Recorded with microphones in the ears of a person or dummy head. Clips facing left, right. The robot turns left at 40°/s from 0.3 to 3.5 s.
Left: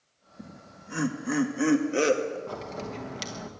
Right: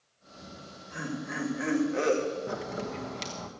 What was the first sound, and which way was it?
Laughter, 70° left (ahead or behind).